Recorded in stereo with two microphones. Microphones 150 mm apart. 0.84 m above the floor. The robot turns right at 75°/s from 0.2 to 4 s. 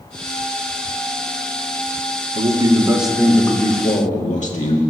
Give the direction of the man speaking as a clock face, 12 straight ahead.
2 o'clock.